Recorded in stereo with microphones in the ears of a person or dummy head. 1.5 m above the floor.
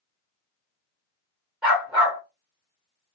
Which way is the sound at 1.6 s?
5° right (ahead or behind).